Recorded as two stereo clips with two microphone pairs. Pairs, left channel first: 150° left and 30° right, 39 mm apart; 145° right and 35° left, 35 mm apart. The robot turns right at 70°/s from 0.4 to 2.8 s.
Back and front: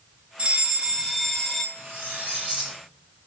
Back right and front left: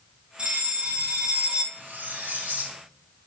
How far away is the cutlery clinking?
About 3 m.